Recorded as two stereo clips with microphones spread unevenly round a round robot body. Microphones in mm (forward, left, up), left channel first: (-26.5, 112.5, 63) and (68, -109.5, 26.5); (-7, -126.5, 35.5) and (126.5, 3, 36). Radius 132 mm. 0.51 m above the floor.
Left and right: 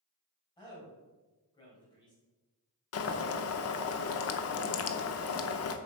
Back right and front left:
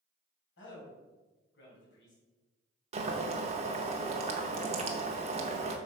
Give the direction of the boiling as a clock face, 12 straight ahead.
9 o'clock.